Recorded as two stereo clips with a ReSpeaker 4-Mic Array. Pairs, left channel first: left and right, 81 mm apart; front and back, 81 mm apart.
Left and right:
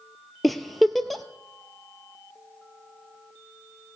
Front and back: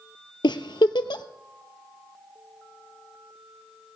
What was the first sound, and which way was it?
A giggle, straight ahead.